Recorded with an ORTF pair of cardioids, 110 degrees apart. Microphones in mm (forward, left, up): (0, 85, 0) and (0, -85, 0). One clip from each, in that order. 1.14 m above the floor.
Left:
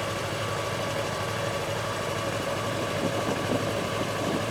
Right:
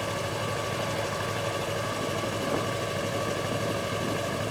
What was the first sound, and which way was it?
A machine running, 5° left.